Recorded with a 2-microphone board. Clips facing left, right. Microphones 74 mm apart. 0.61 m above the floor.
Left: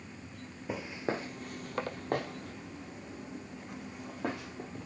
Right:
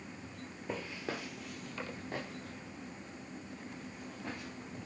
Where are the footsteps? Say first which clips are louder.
Left 5 dB; 5° left (ahead or behind), 0.8 m; by 4.9 s 80° left, 3 m.